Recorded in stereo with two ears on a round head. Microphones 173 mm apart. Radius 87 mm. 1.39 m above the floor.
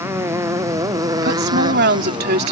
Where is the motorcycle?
15° right (ahead or behind); by 2.5 s 25° right (ahead or behind).